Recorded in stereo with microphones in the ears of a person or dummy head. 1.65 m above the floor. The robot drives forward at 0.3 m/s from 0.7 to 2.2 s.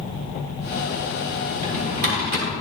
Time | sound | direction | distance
1.5 | a drawer | 45° right (ahead or behind) | 1.3 m